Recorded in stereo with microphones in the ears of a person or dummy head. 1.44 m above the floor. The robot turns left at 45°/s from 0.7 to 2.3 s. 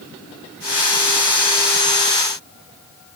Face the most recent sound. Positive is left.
No sound to turn to.